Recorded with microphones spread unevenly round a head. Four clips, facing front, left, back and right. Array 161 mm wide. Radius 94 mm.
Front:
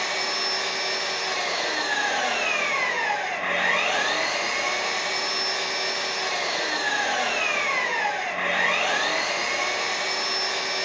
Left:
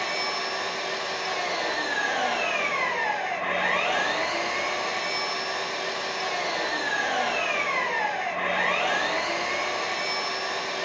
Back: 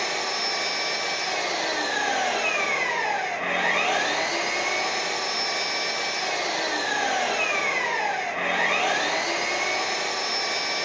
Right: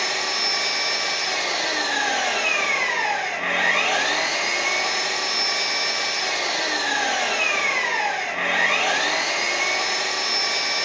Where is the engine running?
115° right, 1.1 m.